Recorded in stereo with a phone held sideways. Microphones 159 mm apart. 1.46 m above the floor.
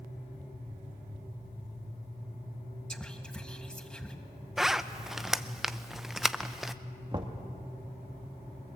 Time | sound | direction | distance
2.9 | whispering | 5° left (ahead or behind) | 1.6 m
4.6 | a zipper | centre (ahead or behind) | 0.6 m
7.1 | knocking | 30° right (ahead or behind) | 2.0 m